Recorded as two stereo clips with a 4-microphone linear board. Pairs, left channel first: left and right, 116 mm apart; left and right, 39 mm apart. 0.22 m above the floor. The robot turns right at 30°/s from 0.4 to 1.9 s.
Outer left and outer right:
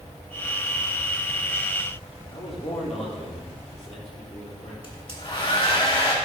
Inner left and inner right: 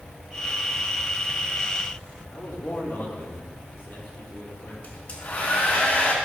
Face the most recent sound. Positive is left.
turn(degrees=45)  # may be behind; listen again after turning